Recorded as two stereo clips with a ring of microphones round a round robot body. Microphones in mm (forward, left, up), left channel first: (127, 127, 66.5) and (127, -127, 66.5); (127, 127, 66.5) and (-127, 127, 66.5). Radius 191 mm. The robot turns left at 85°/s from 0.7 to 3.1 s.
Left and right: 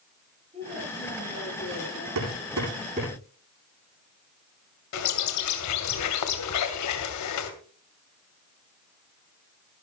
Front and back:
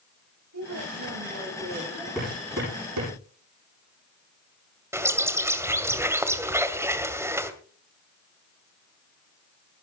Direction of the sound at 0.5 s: 160° right.